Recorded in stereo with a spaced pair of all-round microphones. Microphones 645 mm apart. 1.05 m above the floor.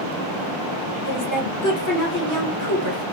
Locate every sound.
1.1 s a woman speaking: 30° left (ahead or behind), 1.2 m